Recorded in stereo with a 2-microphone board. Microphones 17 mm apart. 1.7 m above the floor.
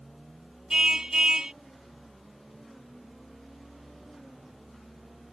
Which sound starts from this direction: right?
A car horn, at 0.7 s.